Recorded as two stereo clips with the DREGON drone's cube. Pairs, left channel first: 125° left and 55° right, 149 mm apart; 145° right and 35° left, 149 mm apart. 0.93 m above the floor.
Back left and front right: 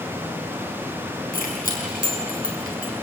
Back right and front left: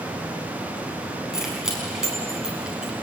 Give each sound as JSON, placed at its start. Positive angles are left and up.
{"t": 1.3, "sound": "keys jangling", "azimuth_deg": 120, "distance_m": 5.5}